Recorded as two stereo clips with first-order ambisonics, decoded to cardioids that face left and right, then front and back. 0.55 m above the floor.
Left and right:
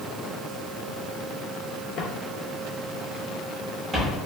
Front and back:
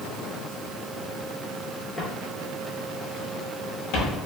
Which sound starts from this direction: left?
Footsteps, at 2.0 s.